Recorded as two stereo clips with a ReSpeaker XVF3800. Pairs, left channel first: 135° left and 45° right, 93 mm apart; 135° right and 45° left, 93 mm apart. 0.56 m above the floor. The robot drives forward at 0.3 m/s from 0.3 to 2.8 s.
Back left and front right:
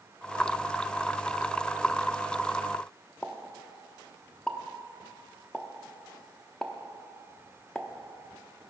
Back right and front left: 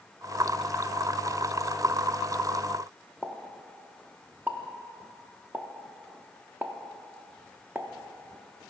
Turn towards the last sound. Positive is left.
turn(degrees=70)